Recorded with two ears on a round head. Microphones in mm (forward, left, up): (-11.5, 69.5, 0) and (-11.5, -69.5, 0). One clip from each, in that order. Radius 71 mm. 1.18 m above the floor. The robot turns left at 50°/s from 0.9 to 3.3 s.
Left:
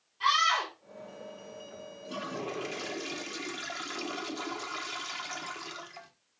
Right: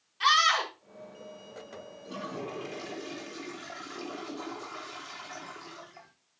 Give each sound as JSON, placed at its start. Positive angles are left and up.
{"t": 0.2, "sound": "a scream", "side_deg": -30, "distance_m": 4.5}
{"t": 2.0, "sound": "a toilet flushing", "azimuth_deg": 155, "distance_m": 1.2}